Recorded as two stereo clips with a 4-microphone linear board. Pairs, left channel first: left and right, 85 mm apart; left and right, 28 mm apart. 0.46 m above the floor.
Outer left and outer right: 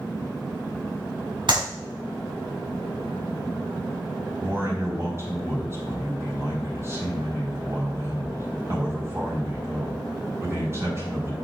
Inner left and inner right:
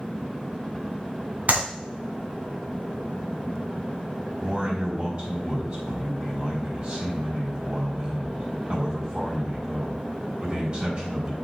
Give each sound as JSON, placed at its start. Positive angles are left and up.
{"t": 1.5, "sound": "a clap", "side_deg": -70, "distance_m": 3.0}
{"t": 4.4, "sound": "a man speaking", "side_deg": -35, "distance_m": 4.0}